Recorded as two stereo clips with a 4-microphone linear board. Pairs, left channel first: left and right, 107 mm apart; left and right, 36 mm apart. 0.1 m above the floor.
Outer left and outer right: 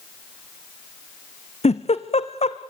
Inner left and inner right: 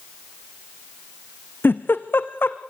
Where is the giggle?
80° left, 1.4 m.